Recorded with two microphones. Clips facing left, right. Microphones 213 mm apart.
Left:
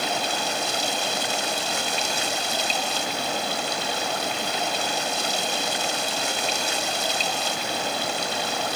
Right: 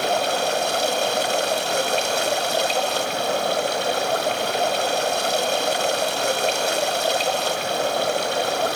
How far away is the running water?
About 1.8 m.